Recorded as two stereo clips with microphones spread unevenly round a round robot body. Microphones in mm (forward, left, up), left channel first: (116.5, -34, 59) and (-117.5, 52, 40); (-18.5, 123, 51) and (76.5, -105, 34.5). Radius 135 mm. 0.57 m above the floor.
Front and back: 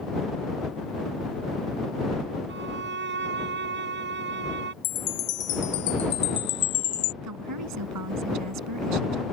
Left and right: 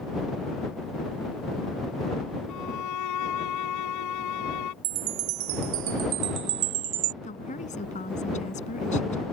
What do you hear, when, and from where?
2.5 s a violin: 110° left
4.8 s a chime: 70° right
7.2 s a woman speaking: 175° left